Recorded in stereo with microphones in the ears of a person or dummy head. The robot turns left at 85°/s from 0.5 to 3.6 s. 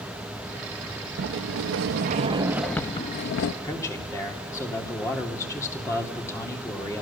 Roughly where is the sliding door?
Ahead right.